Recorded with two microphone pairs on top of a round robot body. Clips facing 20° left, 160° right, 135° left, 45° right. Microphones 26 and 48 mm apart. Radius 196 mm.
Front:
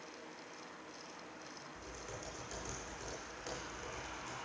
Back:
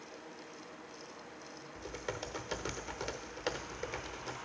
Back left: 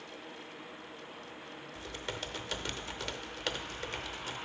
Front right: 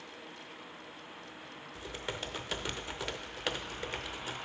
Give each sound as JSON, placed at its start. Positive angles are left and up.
{"t": 1.8, "sound": "typing on a keyboard", "azimuth_deg": -120, "distance_m": 0.6}